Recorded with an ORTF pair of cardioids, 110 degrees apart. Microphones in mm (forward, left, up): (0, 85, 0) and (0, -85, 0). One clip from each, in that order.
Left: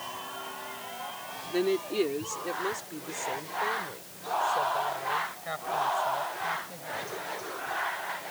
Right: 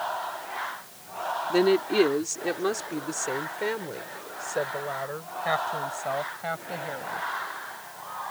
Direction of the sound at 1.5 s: 45° right.